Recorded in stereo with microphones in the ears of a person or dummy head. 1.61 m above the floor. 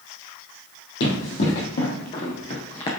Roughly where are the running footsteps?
Left.